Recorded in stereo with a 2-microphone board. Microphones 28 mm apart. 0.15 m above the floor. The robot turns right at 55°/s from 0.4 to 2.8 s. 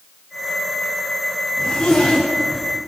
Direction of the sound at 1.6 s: 50° left (ahead or behind).